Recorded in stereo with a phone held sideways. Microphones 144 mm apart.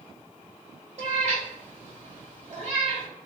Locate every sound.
1.0 s a cat meowing: 55° right (ahead or behind), 1.9 m